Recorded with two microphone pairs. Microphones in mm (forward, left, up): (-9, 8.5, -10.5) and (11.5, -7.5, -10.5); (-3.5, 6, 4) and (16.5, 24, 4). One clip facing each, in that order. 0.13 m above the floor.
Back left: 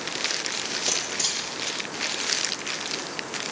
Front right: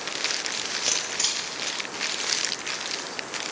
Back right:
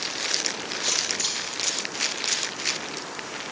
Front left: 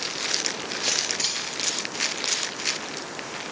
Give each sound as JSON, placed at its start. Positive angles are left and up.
{"t": 0.8, "sound": "a camera shutter", "azimuth_deg": 15, "distance_m": 3.0}